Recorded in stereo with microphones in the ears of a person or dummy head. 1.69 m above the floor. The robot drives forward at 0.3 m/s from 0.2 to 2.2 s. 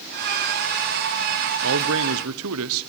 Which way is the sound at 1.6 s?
70° right (ahead or behind).